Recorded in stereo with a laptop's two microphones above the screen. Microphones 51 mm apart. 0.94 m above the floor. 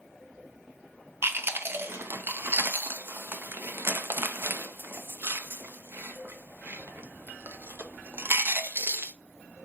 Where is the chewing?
50° right (ahead or behind), 0.6 m.